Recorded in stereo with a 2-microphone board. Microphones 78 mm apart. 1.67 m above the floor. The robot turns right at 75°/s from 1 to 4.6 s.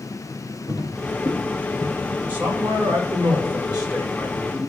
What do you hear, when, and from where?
0.7 s footsteps: 60° left (ahead or behind), 4 m; by 1.9 s 20° left (ahead or behind), 4 m
2.3 s a man speaking: 160° right, 5 m; by 4.6 s 10° left, 5 m